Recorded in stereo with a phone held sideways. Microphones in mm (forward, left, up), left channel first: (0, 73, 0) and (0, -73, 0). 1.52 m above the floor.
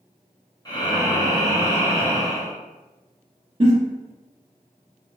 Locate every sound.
0.7 s breathing: 30° left (ahead or behind), 0.7 m
3.6 s a giggle: 40° right (ahead or behind), 1.3 m